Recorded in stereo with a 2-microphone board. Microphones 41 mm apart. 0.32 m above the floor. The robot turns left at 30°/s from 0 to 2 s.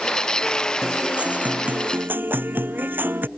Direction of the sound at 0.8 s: 15° right.